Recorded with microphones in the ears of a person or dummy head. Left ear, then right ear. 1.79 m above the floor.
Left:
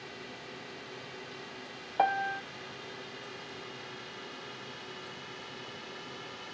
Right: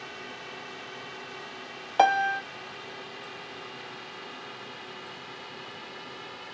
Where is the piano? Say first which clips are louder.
Right 7 dB; 85° right.